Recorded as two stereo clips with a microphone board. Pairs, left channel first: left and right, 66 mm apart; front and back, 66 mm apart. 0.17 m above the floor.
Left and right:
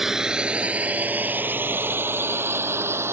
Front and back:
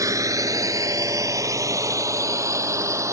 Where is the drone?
175° right; by 3.1 s 140° right.